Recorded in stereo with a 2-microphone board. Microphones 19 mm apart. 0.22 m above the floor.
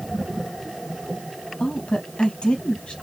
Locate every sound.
1.6 s a woman speaking: 60° left (ahead or behind), 5 m